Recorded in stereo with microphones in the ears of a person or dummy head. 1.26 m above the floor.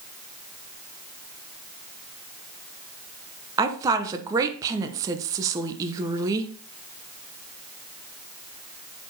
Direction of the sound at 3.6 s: 25° right (ahead or behind).